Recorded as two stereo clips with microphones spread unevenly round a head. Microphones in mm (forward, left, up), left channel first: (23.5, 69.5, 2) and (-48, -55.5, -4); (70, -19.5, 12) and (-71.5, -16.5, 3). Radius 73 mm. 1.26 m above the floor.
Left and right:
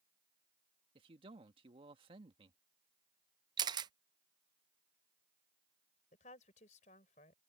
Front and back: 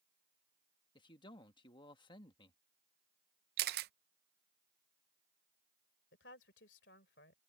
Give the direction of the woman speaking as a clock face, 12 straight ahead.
11 o'clock.